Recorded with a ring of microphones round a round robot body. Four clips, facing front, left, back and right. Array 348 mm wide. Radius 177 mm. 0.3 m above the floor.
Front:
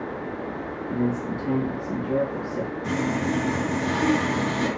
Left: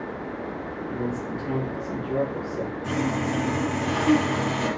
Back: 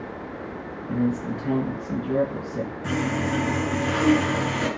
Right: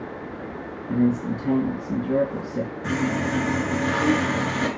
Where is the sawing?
120° right, 4.5 m.